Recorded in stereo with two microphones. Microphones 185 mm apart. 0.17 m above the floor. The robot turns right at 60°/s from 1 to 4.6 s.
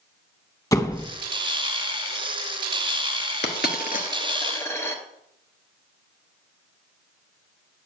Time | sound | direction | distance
0.7 | a door slam | 20° left (ahead or behind) | 0.7 m
3.4 | a dropped coin | 70° left (ahead or behind) | 1.0 m